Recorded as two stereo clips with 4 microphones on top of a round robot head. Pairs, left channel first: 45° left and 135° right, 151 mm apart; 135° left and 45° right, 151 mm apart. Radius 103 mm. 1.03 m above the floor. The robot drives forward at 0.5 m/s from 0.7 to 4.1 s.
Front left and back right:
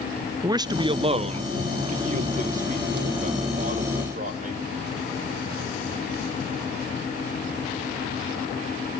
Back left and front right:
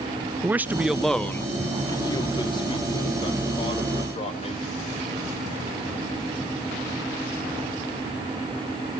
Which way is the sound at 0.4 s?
110° right.